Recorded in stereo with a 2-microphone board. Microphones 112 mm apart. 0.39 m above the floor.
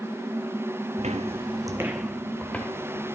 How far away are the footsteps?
About 1.1 m.